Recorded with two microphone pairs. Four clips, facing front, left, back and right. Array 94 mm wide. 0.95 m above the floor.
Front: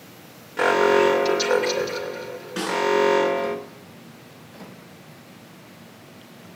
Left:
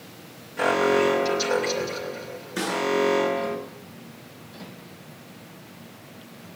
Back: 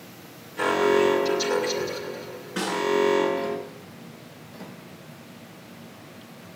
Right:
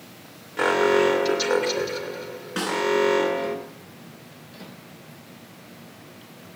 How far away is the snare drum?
About 10 m.